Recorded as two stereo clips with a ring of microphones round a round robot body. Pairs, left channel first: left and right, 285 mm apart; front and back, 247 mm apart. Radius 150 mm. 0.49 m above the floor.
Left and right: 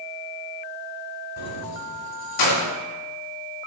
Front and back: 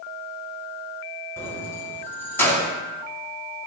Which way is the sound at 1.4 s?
80° left.